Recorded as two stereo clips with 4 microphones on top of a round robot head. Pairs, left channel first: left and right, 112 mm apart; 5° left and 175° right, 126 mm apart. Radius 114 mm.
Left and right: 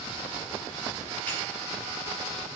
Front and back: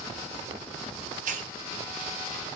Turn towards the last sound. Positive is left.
turn(degrees=170)